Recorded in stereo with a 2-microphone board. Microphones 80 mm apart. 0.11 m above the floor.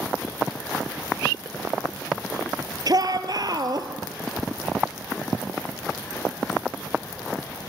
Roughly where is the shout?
Right.